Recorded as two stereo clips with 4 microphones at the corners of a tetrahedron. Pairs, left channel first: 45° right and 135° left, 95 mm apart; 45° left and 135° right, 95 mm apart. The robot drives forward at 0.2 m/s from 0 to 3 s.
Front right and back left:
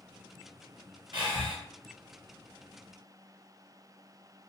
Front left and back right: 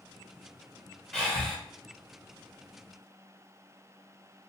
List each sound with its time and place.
1.1 s breathing: 125° left, 1.0 m; by 1.6 s 130° left, 1.0 m